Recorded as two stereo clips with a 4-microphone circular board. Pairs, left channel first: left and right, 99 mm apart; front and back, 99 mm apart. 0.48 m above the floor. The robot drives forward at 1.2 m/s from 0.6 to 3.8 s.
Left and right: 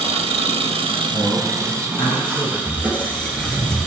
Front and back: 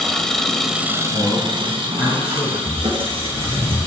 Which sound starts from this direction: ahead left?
A man speaking, at 1.1 s.